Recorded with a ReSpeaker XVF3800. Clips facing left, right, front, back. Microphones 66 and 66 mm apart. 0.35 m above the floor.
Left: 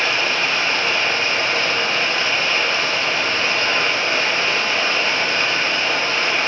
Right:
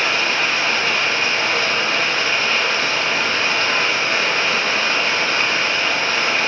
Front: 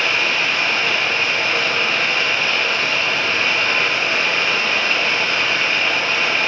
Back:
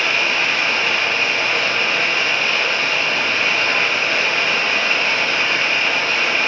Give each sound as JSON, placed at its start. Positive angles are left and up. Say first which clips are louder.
{"t": 0.0, "sound": "running water", "louder": "right 1 dB, even", "azimuth_deg": -90, "distance_m": 2.0}